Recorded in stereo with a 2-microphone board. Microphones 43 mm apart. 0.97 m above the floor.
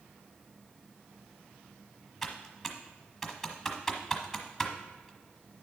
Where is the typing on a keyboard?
Centre (ahead or behind), 1.2 m.